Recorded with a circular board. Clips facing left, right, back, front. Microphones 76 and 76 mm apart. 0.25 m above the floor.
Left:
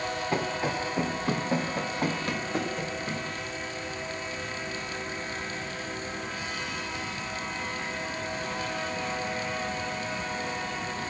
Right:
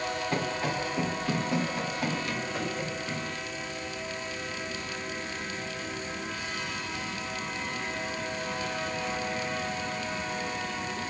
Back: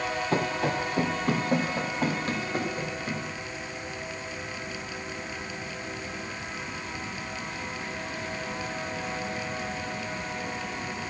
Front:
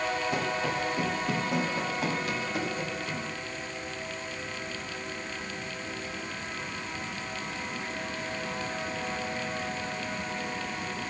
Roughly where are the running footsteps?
Behind.